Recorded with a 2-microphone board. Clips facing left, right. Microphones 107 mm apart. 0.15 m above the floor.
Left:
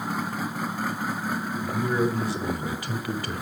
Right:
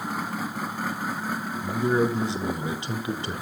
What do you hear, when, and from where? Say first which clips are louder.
1.6 s a man speaking: right 3 dB; 25° right (ahead or behind), 1.2 m